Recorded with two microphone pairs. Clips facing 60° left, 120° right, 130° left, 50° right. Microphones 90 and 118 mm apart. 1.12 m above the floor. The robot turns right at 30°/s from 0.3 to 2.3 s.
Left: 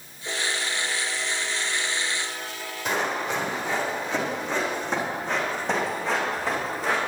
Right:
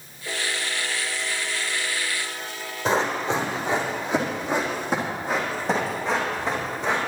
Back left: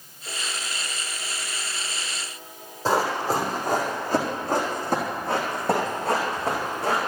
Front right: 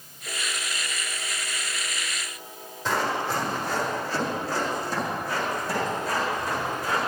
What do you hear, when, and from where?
2.9 s running footsteps: straight behind, 3.5 m; by 7.0 s 150° left, 5 m